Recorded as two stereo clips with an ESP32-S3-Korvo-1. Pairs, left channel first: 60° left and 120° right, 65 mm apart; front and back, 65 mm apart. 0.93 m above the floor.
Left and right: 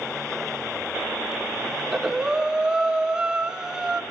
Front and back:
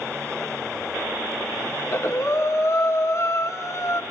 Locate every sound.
1.8 s breathing: 40° right, 1.5 m